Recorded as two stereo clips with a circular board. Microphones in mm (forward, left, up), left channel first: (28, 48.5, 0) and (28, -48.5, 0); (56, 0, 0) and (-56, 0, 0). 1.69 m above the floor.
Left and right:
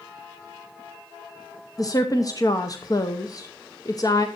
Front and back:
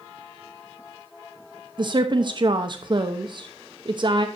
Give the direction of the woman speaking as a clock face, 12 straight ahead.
7 o'clock.